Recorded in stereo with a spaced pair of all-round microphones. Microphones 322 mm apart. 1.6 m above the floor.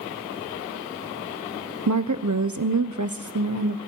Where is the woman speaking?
60° right (ahead or behind), 1.1 m.